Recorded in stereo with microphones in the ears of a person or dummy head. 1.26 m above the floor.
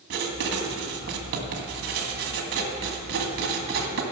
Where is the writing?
55° right (ahead or behind), 1.6 m.